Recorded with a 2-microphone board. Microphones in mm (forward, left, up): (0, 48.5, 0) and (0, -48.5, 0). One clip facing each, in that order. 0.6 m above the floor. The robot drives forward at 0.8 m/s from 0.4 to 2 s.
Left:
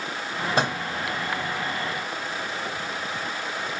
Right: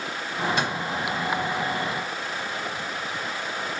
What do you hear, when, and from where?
0.6 s a microwave: 35° left (ahead or behind), 0.9 m